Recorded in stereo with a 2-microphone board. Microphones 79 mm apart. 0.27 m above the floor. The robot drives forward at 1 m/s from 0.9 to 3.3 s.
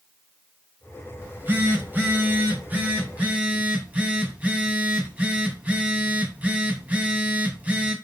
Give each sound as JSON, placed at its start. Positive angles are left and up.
{"t": 1.2, "sound": "a phone buzzing", "side_deg": -25, "distance_m": 1.6}